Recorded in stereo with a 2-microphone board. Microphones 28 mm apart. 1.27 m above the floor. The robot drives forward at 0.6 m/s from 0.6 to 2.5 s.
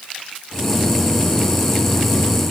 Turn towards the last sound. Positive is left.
No sound to turn to.